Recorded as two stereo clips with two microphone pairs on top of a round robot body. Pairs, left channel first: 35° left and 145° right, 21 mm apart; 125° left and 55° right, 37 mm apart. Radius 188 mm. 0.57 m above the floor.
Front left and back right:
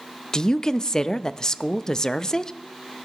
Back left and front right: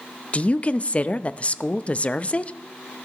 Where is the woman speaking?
80° left, 0.6 m.